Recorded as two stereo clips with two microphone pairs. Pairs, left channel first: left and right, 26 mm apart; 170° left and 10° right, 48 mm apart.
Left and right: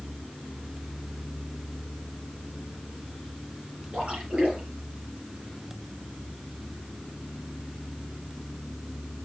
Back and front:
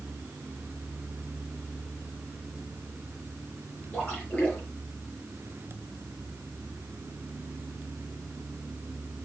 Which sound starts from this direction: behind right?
A splash, at 3.9 s.